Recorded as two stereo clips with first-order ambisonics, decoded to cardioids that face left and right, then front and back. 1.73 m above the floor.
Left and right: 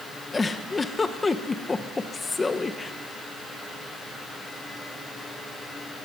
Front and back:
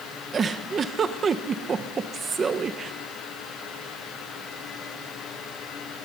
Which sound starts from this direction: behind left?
A giggle, at 0.3 s.